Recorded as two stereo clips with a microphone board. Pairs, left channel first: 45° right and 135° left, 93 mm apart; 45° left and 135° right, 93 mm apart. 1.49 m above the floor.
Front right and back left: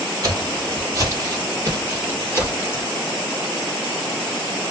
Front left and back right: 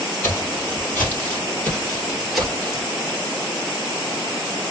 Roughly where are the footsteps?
Left.